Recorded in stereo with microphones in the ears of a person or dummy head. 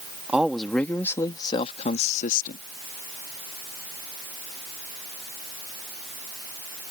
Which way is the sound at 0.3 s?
Centre (ahead or behind).